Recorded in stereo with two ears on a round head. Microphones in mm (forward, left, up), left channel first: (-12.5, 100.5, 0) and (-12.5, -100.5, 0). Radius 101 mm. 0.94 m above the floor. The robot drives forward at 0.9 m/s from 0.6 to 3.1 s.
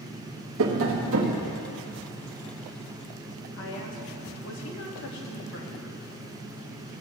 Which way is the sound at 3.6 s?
60° left (ahead or behind).